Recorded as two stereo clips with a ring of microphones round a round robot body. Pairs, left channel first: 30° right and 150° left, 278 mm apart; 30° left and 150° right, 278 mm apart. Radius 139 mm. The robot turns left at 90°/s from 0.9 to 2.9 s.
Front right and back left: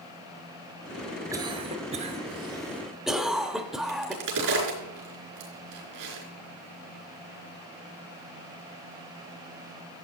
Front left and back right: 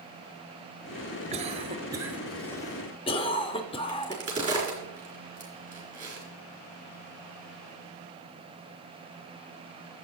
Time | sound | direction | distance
1.3 | a cough | 150° right | 0.7 m
3.9 | a crack | 145° left | 4 m